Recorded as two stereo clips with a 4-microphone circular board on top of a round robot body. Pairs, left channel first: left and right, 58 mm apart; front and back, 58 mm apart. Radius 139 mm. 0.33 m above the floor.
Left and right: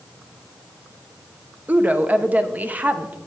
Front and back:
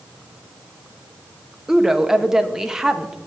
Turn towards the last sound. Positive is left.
turn(degrees=-105)